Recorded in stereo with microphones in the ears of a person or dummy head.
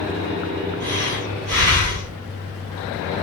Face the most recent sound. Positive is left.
turn(degrees=-40)  # may be behind; listen again after turning